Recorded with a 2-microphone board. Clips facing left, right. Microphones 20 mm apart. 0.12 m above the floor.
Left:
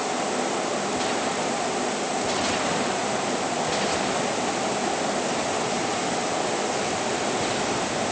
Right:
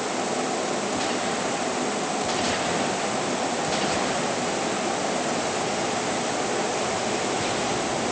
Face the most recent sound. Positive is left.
No sound to turn to.